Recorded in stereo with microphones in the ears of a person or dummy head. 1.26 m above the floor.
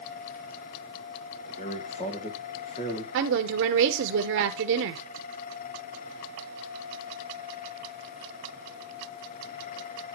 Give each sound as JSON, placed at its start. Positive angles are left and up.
{"t": 1.5, "sound": "a man speaking", "side_deg": 35, "distance_m": 1.9}
{"t": 3.1, "sound": "a woman speaking", "side_deg": -65, "distance_m": 0.8}